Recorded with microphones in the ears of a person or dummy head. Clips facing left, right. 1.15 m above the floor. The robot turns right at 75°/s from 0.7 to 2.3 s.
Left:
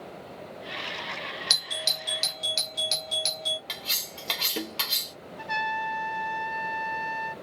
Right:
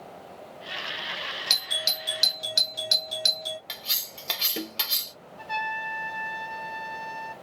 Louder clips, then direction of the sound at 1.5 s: Even; 10° left (ahead or behind).